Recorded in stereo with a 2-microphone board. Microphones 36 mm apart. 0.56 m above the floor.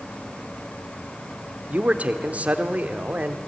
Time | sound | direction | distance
1.7 | a man speaking | 40° right (ahead or behind) | 1.7 m